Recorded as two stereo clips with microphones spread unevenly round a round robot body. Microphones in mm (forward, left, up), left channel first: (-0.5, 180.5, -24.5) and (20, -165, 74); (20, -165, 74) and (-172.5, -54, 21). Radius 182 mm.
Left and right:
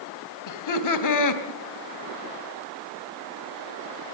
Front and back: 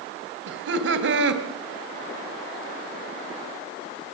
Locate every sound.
0.5 s laughter: 120° left, 2.5 m